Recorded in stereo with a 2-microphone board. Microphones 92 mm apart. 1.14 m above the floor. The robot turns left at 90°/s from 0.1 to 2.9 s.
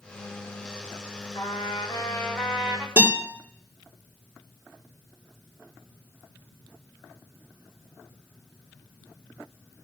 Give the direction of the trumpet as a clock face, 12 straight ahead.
9 o'clock.